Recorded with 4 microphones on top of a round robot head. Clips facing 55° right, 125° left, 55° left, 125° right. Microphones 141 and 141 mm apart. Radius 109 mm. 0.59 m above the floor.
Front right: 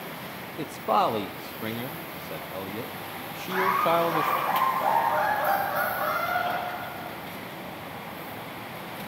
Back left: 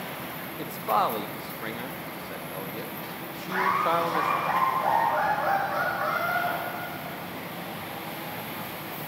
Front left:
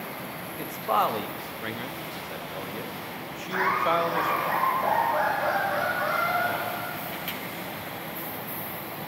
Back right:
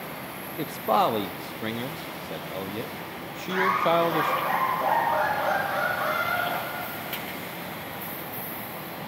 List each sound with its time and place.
0.6 s a man speaking: 110° right, 0.8 m
3.5 s laughter: 125° right, 7.5 m